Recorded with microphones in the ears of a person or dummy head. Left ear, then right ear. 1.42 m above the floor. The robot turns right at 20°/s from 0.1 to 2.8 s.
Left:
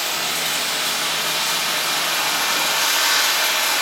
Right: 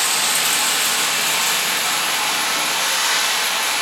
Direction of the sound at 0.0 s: 60° right.